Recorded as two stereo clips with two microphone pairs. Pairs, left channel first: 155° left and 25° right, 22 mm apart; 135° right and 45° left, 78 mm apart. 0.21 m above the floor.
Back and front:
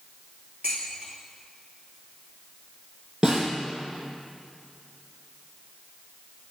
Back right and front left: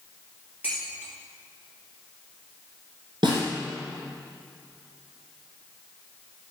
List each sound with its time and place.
0.6 s dishes clattering: 25° right, 3 m
3.2 s a snare drum: 25° left, 3 m